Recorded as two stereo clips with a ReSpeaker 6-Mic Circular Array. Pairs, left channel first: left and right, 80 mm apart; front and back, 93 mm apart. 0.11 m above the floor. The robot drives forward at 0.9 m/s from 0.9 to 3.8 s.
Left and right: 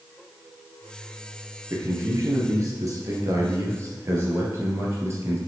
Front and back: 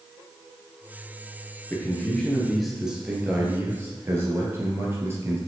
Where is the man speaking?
60° right, 2 m; by 5.4 s 130° right, 2.5 m.